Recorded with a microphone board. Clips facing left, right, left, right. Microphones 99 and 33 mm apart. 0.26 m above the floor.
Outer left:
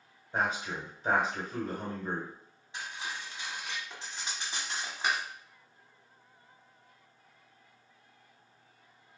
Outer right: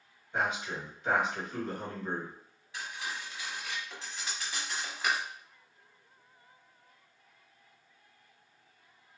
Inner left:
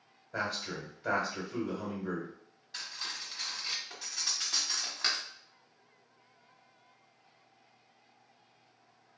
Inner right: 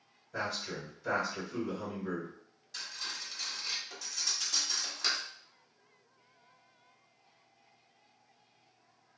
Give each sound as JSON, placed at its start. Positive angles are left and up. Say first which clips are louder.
{"t": 0.3, "sound": "a man speaking", "louder": "outer left 1 dB, inner left 1 dB", "side_deg": 35, "distance_m": 1.5}
{"t": 2.7, "sound": "cutlery clinking", "louder": "even, inner left 1 dB", "side_deg": 25, "distance_m": 1.0}